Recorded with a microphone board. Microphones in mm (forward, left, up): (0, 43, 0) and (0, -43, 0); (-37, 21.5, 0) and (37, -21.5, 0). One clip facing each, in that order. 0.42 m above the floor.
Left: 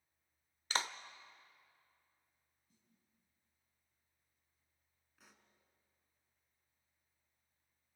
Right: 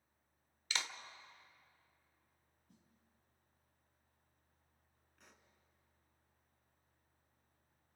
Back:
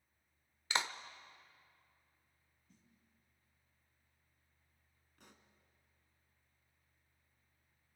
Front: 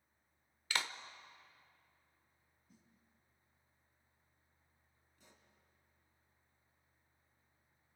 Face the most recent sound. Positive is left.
turn(degrees=175)